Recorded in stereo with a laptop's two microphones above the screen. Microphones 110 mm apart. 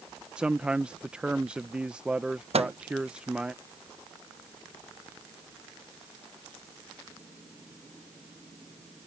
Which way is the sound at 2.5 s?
65° right (ahead or behind).